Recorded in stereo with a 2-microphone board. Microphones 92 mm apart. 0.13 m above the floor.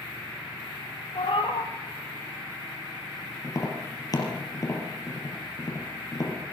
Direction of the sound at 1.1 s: 70° left (ahead or behind).